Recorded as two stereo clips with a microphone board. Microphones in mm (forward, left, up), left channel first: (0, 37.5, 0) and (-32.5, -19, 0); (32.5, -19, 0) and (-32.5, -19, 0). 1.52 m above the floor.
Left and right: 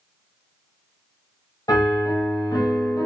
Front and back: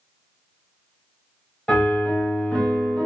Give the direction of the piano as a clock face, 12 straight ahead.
9 o'clock.